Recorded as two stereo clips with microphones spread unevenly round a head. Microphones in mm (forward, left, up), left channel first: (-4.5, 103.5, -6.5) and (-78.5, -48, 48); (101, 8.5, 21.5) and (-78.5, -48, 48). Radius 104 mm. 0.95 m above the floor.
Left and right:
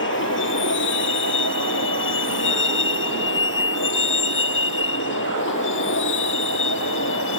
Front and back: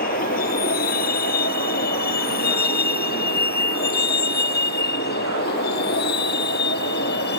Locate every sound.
0.0 s a vehicle: 65° left; by 7.4 s 60° left